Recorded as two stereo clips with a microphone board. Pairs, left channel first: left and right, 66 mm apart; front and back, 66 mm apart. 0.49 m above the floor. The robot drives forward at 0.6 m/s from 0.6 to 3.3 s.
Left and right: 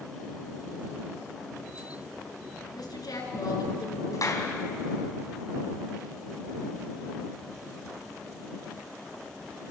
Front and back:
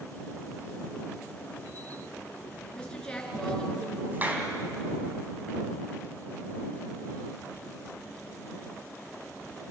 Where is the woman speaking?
75° left, 5.5 m; by 4.0 s 80° left, 5.5 m.